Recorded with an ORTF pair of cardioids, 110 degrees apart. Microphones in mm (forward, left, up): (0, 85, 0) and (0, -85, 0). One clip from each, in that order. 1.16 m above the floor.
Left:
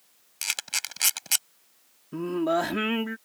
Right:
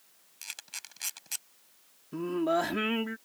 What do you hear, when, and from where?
0.4 s a camera shutter: 70° left
2.1 s singing: 15° left